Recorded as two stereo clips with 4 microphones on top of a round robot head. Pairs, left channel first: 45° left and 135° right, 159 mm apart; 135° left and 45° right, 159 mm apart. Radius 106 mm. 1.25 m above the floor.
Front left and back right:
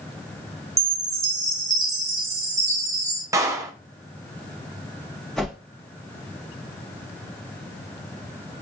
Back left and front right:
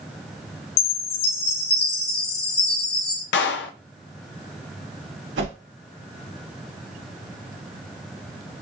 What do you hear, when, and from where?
0.8 s a chime: 155° left, 1.3 m
3.3 s a clap: 155° left, 0.6 m
5.4 s a whoosh: 40° right, 1.9 m